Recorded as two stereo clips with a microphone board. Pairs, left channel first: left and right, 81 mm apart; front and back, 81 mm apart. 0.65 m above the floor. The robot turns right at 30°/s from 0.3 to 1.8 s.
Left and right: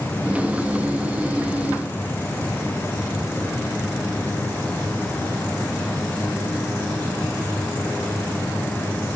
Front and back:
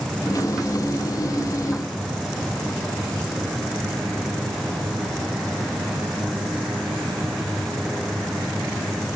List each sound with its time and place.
Only background noise.